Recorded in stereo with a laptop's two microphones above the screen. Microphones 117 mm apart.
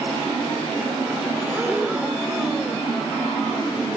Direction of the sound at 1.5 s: 15° right (ahead or behind).